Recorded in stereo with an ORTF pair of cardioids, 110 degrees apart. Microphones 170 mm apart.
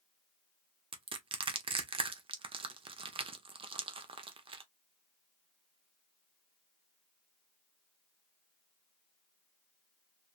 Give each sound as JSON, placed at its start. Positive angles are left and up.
{"t": 0.9, "sound": "crushing", "azimuth_deg": -30, "distance_m": 0.9}